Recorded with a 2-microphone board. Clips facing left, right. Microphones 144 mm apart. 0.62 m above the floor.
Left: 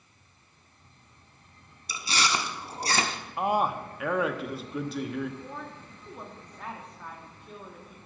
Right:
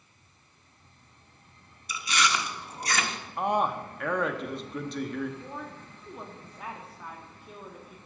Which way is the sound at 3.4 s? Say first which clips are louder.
Left 1 dB; 5° left (ahead or behind).